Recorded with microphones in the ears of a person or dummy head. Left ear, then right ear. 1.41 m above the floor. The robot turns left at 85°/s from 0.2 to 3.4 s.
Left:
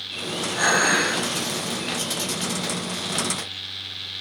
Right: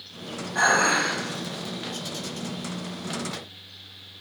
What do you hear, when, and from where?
0.6 s dishes clattering: 140° right, 3 m; by 1.2 s 165° left, 3 m